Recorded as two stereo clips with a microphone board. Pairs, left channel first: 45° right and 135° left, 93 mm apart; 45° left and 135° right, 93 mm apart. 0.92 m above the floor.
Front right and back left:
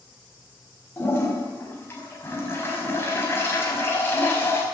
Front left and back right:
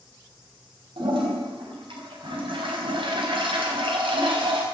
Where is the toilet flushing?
110° right, 4.5 m.